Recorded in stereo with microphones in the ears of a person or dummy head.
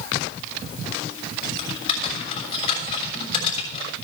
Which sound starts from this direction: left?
Typing on a keyboard, at 1.6 s.